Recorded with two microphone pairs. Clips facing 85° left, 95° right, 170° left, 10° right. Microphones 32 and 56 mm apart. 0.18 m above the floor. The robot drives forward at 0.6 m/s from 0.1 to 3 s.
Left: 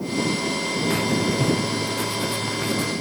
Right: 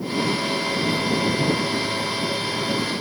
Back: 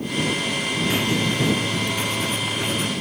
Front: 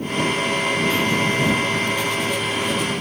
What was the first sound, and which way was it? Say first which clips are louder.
Writing: left 2 dB, front 3 dB; 95° left.